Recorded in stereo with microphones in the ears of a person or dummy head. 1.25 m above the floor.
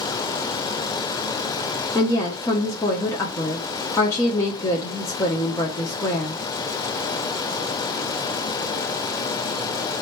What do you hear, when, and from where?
1.9 s a woman speaking: 15° left (ahead or behind), 1.0 m